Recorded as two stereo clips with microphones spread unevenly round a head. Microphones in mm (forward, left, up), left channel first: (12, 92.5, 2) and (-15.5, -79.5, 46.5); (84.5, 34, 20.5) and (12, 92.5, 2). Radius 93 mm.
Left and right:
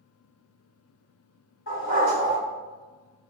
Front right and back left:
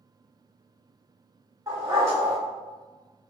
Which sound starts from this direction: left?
A dog barking, at 1.7 s.